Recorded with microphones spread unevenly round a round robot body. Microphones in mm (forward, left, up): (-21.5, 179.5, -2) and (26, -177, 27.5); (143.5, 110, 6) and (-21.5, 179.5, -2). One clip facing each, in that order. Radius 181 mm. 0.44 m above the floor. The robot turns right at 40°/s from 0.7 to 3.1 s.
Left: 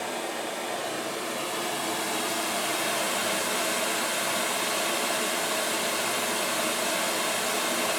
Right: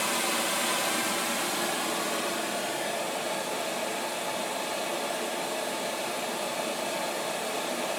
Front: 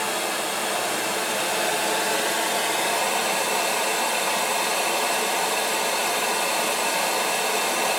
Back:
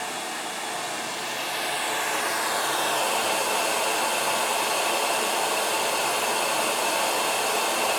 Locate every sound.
0.0 s running water: 30° right, 1.7 m; by 8.0 s 65° left, 1.7 m